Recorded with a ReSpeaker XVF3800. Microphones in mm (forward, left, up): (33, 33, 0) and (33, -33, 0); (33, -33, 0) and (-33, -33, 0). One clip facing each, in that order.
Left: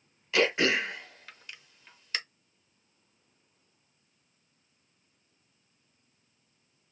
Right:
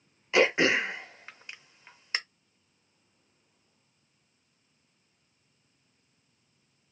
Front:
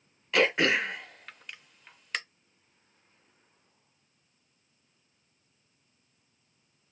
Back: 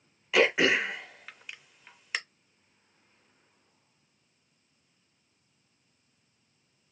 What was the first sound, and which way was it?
Throat clearing, 100° right.